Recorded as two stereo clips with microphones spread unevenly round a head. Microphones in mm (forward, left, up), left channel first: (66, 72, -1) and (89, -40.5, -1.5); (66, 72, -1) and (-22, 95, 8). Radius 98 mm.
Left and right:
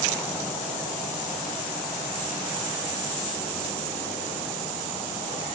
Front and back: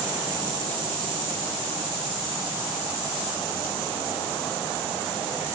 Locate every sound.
Only background noise.